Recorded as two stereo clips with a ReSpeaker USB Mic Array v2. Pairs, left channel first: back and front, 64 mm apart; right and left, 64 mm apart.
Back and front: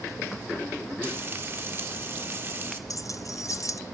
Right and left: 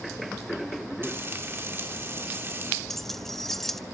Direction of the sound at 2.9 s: 175° right.